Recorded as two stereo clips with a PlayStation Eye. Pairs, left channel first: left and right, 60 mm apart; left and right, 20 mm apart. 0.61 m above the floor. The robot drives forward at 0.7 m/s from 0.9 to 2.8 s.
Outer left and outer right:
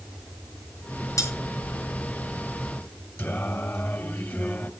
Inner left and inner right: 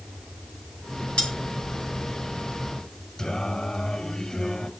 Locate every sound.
1.2 s cutlery clinking: 70° left (ahead or behind), 5.5 m
3.2 s singing: 35° left (ahead or behind), 1.3 m